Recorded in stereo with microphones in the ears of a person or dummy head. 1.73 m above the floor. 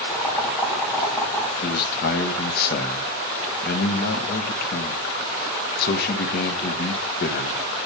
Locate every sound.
0.1 s boiling: 15° left (ahead or behind), 5.5 m
1.6 s a man speaking: 55° left (ahead or behind), 1.7 m